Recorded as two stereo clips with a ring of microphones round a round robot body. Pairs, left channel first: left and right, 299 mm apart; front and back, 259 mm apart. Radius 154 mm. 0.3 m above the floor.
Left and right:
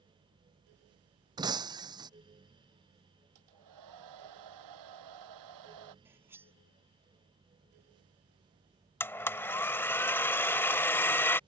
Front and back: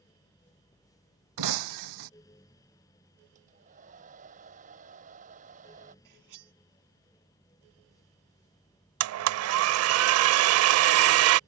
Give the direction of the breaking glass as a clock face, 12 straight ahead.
6 o'clock.